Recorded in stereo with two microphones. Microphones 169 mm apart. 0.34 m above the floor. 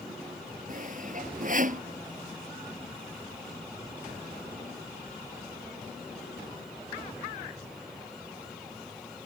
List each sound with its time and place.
0.7 s sawing: 50° right (ahead or behind)